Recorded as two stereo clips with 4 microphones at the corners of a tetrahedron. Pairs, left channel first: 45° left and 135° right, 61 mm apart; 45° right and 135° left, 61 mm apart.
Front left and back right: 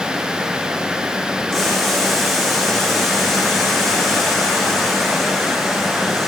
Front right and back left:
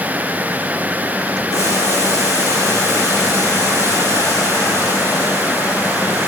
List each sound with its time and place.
1.5 s boiling: 45° right, 8 m